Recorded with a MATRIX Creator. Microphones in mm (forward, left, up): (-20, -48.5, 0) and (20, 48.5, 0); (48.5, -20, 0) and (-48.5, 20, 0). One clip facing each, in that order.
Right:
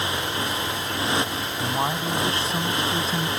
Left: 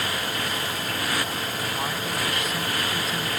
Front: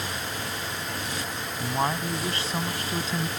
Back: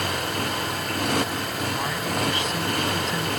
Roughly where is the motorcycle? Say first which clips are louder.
Right 2 dB, back 6 dB; behind.